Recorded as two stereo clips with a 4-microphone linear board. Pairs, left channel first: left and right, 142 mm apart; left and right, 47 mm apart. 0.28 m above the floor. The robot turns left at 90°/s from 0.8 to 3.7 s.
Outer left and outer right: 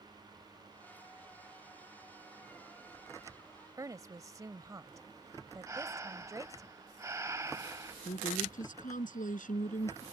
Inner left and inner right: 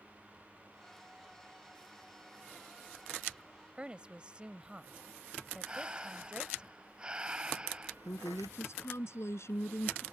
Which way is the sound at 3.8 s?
25° right (ahead or behind).